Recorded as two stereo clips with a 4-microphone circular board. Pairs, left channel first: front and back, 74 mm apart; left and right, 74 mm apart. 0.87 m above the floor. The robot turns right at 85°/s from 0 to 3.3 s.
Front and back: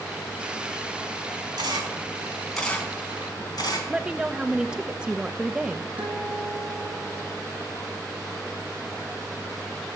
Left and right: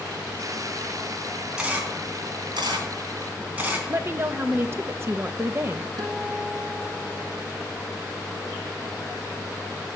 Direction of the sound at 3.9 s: 110° right.